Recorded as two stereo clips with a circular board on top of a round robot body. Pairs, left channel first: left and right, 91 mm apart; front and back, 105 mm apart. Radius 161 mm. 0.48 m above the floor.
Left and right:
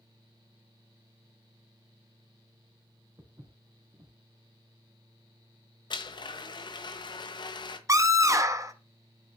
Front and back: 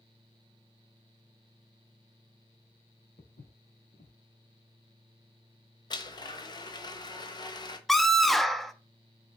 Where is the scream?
85° right, 1.2 m.